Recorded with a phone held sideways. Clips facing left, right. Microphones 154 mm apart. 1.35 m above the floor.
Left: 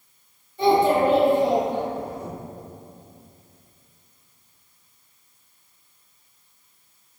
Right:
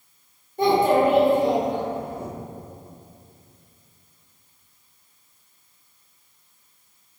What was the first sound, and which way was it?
A child speaking, 50° right (ahead or behind).